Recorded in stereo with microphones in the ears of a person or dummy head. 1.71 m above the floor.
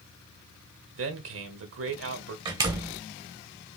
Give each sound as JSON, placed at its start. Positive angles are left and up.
{"t": 0.9, "sound": "a man speaking", "side_deg": -70, "distance_m": 1.6}
{"t": 2.5, "sound": "a door slam", "side_deg": -25, "distance_m": 0.9}